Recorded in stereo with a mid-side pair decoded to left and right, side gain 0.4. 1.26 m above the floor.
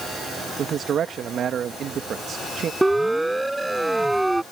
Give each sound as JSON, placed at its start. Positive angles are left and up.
{"t": 0.6, "sound": "a man speaking", "azimuth_deg": -65}
{"t": 2.8, "sound": "a siren", "azimuth_deg": -10}